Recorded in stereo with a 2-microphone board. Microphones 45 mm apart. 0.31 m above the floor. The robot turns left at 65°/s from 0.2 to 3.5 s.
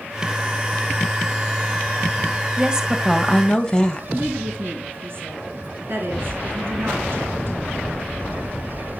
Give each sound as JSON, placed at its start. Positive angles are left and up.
{"t": 2.6, "sound": "a woman speaking", "azimuth_deg": -135, "distance_m": 1.5}
{"t": 4.2, "sound": "a woman speaking", "side_deg": -55, "distance_m": 3.5}